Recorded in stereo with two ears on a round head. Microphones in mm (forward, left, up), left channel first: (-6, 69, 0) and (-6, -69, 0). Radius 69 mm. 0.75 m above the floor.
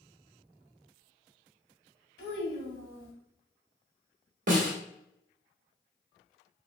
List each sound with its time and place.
2.2 s a child speaking: 65° left (ahead or behind), 1.6 m
4.5 s a snare drum: 55° right (ahead or behind), 1.3 m